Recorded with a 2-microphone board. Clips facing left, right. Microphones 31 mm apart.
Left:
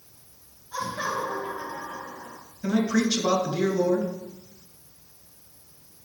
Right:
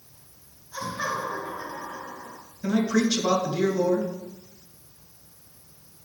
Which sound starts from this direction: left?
Laughter, at 0.7 s.